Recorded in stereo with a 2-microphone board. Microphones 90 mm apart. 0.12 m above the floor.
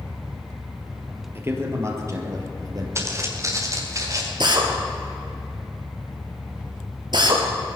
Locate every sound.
1.4 s a man speaking: 30° right (ahead or behind), 2.5 m; by 2.9 s 45° right (ahead or behind), 2.5 m
3.0 s footsteps: 30° right (ahead or behind), 2.5 m; by 4.3 s 40° right (ahead or behind), 4 m
4.4 s a drill: 55° right (ahead or behind), 2 m